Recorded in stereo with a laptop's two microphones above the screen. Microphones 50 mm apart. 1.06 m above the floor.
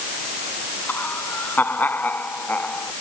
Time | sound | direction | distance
0.9 | laughter | 40° left (ahead or behind) | ?